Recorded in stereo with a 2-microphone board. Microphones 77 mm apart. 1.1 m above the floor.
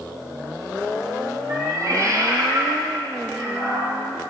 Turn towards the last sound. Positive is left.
turn(degrees=-30)  # may be behind; listen again after turning